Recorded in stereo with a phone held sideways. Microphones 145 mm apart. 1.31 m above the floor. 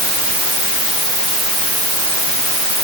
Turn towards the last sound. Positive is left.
No sound to turn to.